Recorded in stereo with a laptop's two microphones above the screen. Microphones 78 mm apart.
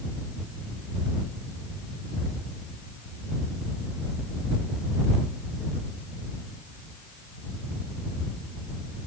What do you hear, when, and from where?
Only background noise.